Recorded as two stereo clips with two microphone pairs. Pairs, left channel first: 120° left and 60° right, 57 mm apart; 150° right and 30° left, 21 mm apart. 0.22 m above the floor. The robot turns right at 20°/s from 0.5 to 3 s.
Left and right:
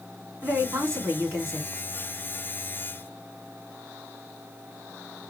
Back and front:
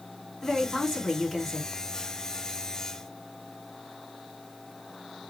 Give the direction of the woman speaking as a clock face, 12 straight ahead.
3 o'clock.